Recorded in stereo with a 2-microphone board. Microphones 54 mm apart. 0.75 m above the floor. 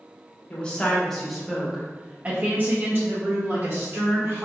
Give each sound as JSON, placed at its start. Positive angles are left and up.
{"t": 0.5, "sound": "a woman speaking", "side_deg": 20, "distance_m": 1.2}